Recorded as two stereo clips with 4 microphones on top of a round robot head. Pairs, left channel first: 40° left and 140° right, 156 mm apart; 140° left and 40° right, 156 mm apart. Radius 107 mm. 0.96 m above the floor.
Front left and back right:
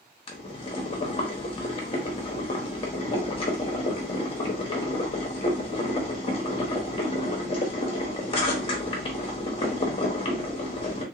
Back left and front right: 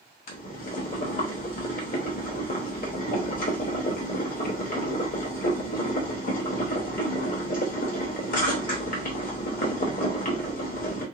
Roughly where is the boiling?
Left.